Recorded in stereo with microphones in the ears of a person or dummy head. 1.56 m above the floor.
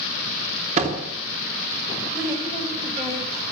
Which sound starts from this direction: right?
A door slam, at 0.8 s.